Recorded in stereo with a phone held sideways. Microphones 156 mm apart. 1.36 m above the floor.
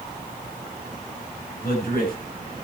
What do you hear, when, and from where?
1.6 s a man speaking: 85° left, 8.5 m